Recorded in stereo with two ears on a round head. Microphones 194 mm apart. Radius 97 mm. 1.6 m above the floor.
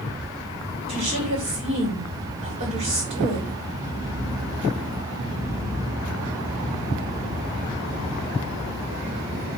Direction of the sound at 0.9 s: 30° right (ahead or behind).